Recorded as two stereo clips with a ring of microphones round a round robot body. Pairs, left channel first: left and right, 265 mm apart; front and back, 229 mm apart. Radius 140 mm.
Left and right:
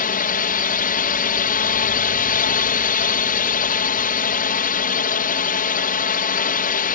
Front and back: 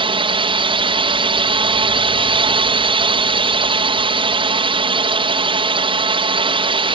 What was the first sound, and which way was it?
A drone, 125° left.